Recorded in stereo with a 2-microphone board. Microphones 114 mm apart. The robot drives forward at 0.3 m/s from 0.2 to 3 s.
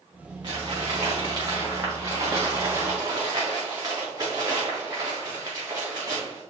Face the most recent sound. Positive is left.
turn(degrees=-30)  # may be behind; listen again after turning